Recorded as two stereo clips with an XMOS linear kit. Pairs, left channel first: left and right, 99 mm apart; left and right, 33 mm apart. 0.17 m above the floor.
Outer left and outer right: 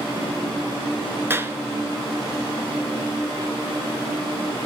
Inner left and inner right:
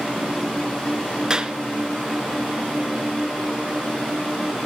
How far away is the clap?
About 2.5 m.